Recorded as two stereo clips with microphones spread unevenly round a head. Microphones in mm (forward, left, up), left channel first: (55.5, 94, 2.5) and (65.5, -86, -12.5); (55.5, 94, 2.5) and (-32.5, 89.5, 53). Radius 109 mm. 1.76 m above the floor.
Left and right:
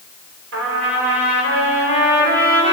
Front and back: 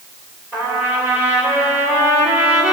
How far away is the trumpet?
About 7 m.